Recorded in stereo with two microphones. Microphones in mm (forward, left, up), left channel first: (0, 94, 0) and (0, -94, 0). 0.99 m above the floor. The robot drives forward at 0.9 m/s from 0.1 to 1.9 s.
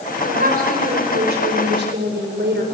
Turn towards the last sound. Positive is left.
turn(degrees=-70)  # may be behind; listen again after turning